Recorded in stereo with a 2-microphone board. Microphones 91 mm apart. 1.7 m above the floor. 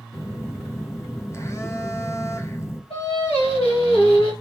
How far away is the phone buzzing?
About 0.6 m.